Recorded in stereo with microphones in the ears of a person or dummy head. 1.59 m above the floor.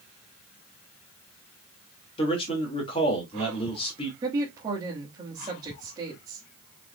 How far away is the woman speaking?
About 3.5 m.